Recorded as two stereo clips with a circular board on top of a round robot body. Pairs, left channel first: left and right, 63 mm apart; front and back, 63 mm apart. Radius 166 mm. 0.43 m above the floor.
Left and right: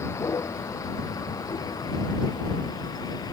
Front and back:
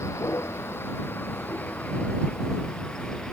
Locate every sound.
0.0 s a vehicle: 45° left; by 3.3 s 80° left